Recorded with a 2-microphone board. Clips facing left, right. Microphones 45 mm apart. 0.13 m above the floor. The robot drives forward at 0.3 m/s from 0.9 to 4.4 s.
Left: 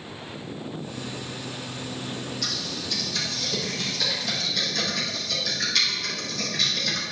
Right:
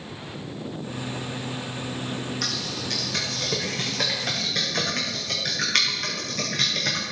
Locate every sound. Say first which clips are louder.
2.4 s typing on a keyboard: right 2 dB; 60° right (ahead or behind), 4.5 m; by 7.0 s 55° right (ahead or behind), 5 m